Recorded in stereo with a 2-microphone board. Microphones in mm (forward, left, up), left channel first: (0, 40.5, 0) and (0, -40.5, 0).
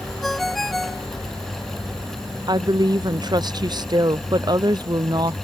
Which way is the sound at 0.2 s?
Centre (ahead or behind).